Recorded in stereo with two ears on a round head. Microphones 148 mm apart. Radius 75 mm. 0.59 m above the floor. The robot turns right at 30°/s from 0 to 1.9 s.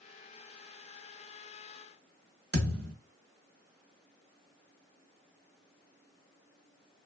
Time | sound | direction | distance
2.5 | a thud | 65° right (ahead or behind) | 1.1 m